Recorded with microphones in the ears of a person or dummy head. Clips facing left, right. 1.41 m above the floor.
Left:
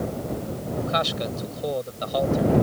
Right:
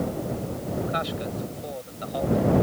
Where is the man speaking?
60° left (ahead or behind).